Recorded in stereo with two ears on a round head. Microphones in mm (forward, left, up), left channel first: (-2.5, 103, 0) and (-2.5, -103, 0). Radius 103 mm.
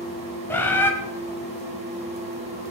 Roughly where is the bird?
Centre.